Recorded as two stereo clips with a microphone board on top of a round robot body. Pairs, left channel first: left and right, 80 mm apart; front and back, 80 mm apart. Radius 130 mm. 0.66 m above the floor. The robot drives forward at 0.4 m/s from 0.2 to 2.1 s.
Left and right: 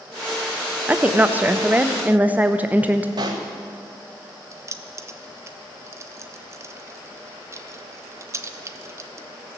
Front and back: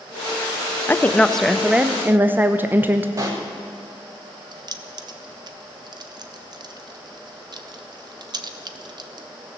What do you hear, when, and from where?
0.9 s a woman speaking: 40° right, 0.7 m; by 3.1 s 140° right, 0.7 m
3.2 s a pop: 130° right, 0.6 m
4.5 s keys jangling: 145° right, 0.7 m